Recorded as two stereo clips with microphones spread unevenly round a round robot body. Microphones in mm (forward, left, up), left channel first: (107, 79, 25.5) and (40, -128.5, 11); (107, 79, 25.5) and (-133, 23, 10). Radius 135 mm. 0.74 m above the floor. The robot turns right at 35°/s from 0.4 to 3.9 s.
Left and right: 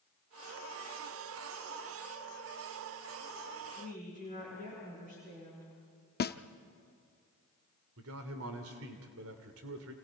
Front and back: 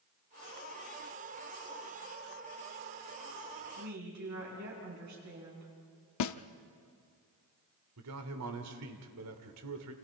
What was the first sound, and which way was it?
A woman speaking, 175° right.